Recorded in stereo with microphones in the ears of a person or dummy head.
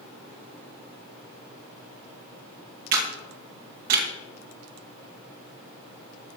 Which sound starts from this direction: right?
A camera shutter, at 2.9 s.